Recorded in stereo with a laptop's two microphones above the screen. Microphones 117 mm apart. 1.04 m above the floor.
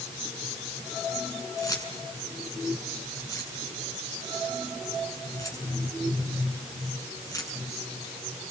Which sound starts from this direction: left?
Keys jangling, at 1.6 s.